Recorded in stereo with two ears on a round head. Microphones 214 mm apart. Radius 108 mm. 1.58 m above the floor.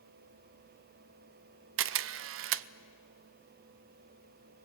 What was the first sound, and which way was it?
A camera shutter, 60° right (ahead or behind).